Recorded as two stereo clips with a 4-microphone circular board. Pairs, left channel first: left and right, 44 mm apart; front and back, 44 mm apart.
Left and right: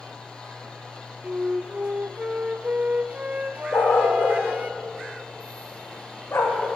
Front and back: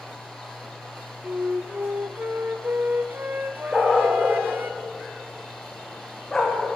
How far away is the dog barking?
About 6.5 m.